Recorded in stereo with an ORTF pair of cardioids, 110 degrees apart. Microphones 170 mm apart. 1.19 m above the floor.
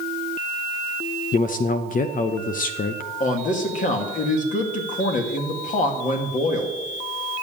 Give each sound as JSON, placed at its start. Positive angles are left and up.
{"t": 1.3, "sound": "a man speaking", "azimuth_deg": 50, "distance_m": 0.7}
{"t": 3.2, "sound": "a man speaking", "azimuth_deg": 50, "distance_m": 2.5}